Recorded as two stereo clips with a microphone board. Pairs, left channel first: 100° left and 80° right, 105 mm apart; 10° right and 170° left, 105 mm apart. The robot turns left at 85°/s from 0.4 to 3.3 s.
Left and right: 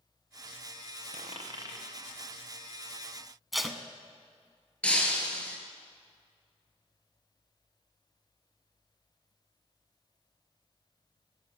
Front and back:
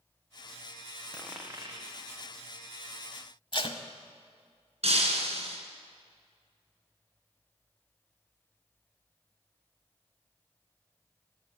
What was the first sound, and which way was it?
A dropped coin, 90° right.